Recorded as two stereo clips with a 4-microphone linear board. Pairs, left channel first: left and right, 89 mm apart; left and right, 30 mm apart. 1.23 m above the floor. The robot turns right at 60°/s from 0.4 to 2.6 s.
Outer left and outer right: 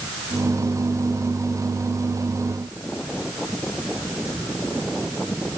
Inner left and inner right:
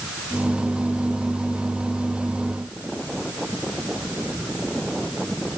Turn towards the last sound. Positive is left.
No sound to turn to.